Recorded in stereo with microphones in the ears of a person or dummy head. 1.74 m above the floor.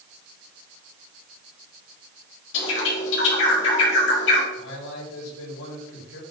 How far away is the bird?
About 4.5 m.